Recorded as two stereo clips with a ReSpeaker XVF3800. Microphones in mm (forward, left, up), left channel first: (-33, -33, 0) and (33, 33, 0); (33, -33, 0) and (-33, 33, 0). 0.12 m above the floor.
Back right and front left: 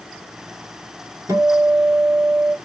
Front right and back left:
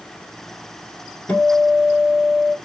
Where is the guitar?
25° left, 0.8 m.